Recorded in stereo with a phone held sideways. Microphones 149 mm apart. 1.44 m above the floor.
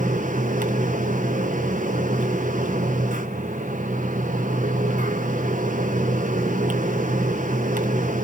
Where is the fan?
60° right (ahead or behind), 1.3 m.